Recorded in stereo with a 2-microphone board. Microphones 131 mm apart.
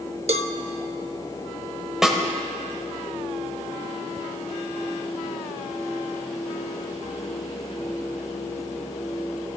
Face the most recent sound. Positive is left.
turn(degrees=-5)  # may be behind; listen again after turning